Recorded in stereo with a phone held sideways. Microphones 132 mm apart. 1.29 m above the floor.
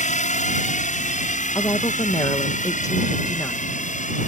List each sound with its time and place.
0.0 s a drone: 65° left (ahead or behind); by 4.3 s 70° left (ahead or behind)
1.6 s a woman speaking: 25° left (ahead or behind)